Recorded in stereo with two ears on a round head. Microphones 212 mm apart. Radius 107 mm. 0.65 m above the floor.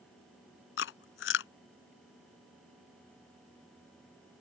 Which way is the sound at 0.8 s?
60° left (ahead or behind).